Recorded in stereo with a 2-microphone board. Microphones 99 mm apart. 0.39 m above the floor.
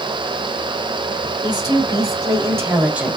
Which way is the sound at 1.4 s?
45° right (ahead or behind).